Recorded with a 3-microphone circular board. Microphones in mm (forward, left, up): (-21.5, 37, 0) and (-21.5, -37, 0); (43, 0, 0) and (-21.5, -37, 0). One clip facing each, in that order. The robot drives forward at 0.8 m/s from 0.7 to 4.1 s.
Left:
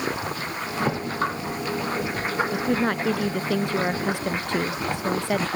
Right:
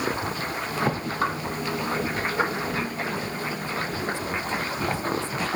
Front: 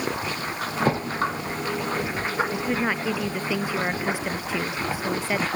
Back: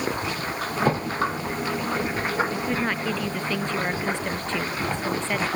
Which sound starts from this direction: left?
A woman speaking, at 2.5 s.